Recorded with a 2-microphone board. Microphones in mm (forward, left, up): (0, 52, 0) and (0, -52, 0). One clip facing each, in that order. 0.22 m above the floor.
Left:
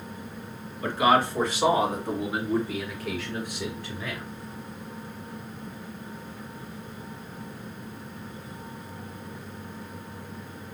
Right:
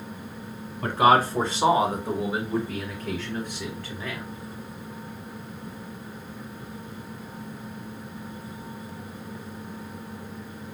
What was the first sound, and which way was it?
A man speaking, 50° right (ahead or behind).